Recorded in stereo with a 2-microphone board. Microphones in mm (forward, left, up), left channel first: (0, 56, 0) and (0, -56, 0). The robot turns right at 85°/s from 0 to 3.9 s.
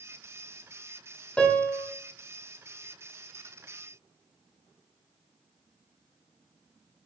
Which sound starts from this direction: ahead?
A piano, at 1.4 s.